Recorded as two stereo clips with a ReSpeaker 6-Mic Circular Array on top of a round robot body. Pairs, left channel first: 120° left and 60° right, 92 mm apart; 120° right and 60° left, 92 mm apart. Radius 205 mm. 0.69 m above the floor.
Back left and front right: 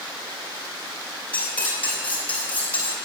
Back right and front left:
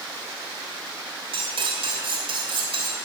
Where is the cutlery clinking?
50° left, 3 m.